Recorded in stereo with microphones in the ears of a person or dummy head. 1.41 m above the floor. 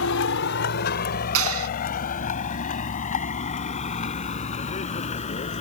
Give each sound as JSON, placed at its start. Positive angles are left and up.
{"t": 0.0, "sound": "a vehicle", "side_deg": 75}
{"t": 1.4, "sound": "a clap", "side_deg": -80}